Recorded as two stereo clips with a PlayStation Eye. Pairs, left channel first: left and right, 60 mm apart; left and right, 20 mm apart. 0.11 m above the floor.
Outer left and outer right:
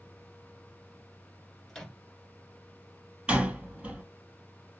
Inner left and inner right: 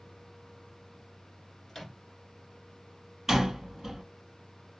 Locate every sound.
1.7 s a microwave: 10° left (ahead or behind), 1.0 m
3.3 s a door slam: 15° right (ahead or behind), 2.5 m